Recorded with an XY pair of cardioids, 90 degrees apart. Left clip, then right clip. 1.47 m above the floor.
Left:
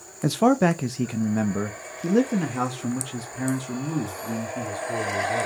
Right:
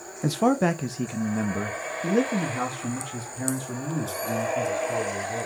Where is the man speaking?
20° left, 0.8 m; by 5.5 s 30° left, 4 m.